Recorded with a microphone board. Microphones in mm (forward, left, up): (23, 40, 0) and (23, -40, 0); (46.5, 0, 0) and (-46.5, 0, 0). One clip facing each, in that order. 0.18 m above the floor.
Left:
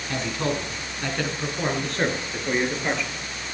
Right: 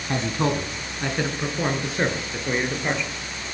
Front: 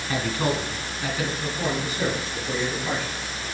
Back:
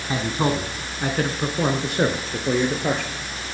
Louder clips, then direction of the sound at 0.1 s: Right 3 dB, back 3 dB; 120° right.